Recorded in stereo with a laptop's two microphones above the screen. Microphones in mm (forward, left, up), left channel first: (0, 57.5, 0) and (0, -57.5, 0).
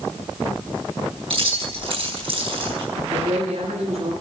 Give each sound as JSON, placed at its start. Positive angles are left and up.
{"t": 1.3, "sound": "keys jangling", "side_deg": -50, "distance_m": 5.5}
{"t": 2.9, "sound": "a woman speaking", "side_deg": -75, "distance_m": 6.0}